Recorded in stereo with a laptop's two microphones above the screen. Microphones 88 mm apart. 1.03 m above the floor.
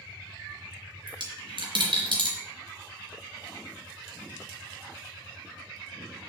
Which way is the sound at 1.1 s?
65° right (ahead or behind).